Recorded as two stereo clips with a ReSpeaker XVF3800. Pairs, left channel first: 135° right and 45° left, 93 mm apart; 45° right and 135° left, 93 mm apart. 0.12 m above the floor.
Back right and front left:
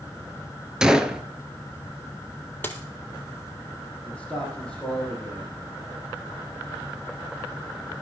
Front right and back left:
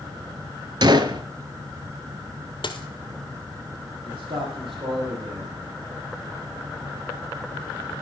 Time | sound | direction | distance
0.8 | a gunshot | 125° left | 0.7 m
2.6 | a dropped coin | 65° right | 1.1 m
4.0 | a man speaking | 145° left | 5 m